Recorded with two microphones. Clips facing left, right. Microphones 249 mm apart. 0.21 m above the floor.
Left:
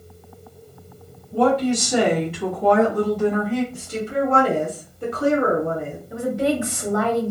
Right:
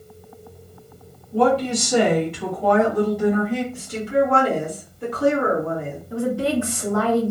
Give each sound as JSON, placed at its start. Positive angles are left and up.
{"t": 1.3, "sound": "a woman speaking", "side_deg": 25, "distance_m": 1.7}
{"t": 3.7, "sound": "a woman speaking", "side_deg": 30, "distance_m": 1.9}
{"t": 6.1, "sound": "a woman speaking", "side_deg": 20, "distance_m": 2.0}